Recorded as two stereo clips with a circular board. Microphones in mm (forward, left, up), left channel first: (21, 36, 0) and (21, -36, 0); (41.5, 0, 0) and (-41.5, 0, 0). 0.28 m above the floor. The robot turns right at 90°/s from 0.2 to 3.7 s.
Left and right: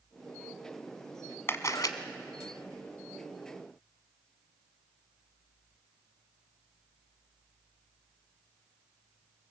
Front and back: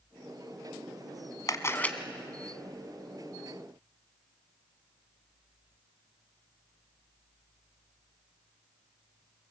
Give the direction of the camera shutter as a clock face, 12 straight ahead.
11 o'clock.